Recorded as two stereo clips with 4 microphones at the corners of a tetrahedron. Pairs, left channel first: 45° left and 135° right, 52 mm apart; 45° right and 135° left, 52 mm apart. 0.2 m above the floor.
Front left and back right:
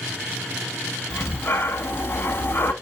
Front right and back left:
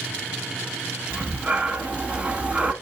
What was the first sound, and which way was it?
Breathing, 75° left.